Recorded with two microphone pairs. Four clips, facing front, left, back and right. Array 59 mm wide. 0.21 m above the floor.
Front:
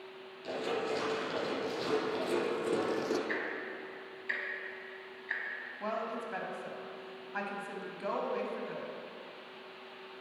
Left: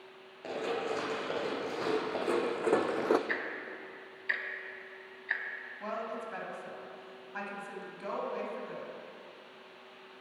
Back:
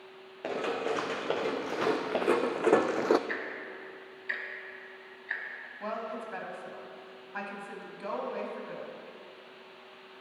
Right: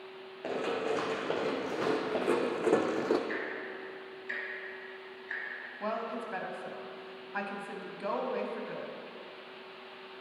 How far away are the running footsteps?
About 2.5 m.